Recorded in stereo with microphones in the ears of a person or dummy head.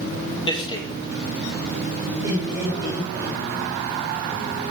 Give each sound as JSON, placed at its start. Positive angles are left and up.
{"t": 0.5, "sound": "a man speaking", "side_deg": 25, "distance_m": 1.8}
{"t": 2.2, "sound": "laughter", "side_deg": -15, "distance_m": 7.5}